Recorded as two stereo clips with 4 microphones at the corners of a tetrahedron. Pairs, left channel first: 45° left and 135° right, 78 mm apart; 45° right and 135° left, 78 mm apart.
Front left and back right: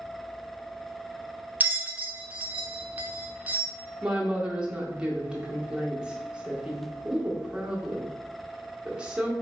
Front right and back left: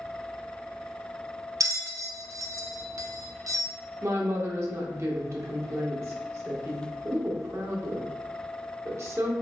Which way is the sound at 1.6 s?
160° left.